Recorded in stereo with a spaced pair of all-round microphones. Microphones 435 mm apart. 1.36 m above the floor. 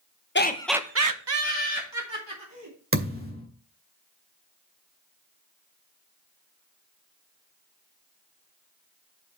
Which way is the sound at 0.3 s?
25° left (ahead or behind).